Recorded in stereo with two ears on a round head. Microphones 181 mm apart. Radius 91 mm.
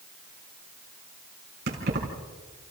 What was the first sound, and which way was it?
Keys jangling, 55° right (ahead or behind).